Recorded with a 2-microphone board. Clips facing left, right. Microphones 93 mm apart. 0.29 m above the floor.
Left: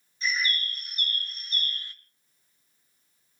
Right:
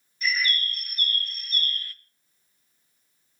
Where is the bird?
20° left (ahead or behind), 1.4 m.